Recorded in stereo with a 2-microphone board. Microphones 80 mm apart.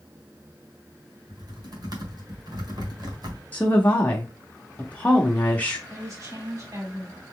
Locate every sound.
1.3 s typing on a keyboard: 55° right (ahead or behind), 1.3 m
3.5 s a woman speaking: 20° left (ahead or behind), 0.7 m
5.9 s a woman speaking: 40° right (ahead or behind), 2.5 m